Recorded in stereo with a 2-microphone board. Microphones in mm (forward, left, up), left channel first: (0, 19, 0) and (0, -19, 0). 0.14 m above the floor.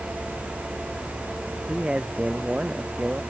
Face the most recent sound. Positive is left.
turn(degrees=-35)  # may be behind; listen again after turning